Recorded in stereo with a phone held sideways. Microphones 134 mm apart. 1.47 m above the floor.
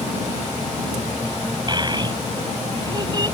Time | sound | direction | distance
1.7 | a child speaking | 35° right (ahead or behind) | ?